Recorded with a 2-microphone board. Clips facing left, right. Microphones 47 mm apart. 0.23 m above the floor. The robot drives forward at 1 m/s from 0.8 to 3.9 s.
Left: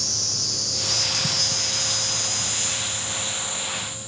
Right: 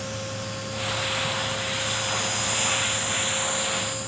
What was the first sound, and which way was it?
An insect, 80° left.